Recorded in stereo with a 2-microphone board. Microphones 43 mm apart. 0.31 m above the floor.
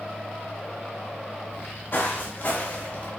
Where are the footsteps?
55° left (ahead or behind), 2 m; by 3.1 s 35° left (ahead or behind), 3 m.